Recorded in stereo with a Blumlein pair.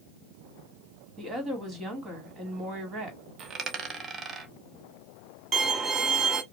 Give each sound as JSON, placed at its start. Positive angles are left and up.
{"t": 1.2, "sound": "a woman speaking", "azimuth_deg": -20, "distance_m": 2.0}
{"t": 3.4, "sound": "a dropped coin", "azimuth_deg": -20, "distance_m": 0.8}
{"t": 5.5, "sound": "a violin", "azimuth_deg": -20, "distance_m": 0.8}